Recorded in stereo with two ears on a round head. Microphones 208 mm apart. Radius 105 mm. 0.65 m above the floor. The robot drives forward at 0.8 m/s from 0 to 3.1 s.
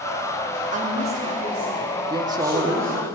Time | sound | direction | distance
0.7 | a woman speaking | 35° right (ahead or behind) | 1.0 m
2.1 | a man speaking | 20° right (ahead or behind) | 0.9 m